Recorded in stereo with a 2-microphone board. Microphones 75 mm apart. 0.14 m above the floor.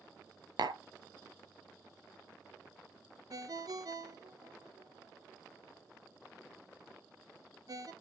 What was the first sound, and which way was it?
Tapping, 70° right (ahead or behind).